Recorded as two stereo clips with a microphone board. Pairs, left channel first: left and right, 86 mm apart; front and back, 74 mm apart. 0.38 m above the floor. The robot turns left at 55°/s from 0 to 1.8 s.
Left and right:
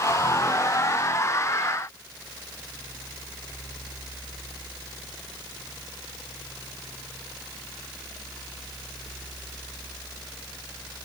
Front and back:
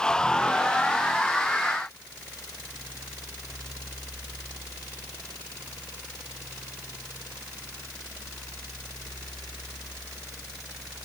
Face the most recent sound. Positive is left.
No sound to turn to.